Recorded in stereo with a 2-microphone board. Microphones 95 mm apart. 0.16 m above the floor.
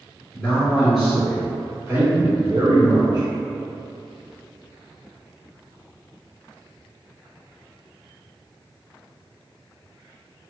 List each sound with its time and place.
0.3 s a man speaking: 5° left (ahead or behind), 1.6 m; by 3.3 s 45° right (ahead or behind), 1.7 m